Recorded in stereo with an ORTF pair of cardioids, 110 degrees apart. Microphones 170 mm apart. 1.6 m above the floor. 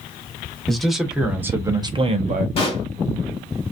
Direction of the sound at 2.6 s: 35° left.